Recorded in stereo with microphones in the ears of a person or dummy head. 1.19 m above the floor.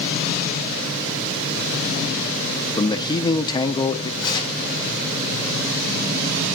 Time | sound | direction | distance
2.8 | a man speaking | 25° left (ahead or behind) | 1.0 m
4.2 | tearing paper | 20° left (ahead or behind) | 5 m